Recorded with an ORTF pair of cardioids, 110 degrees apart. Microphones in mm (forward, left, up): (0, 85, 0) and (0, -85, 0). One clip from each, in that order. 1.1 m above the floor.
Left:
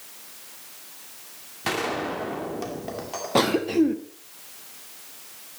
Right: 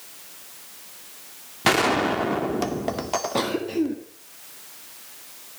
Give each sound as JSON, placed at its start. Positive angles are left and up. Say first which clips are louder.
{"t": 1.6, "sound": "a gunshot", "louder": "right 7 dB", "azimuth_deg": -45, "distance_m": 2.0}
{"t": 3.4, "sound": "a cough", "louder": "left 8 dB", "azimuth_deg": 30, "distance_m": 1.7}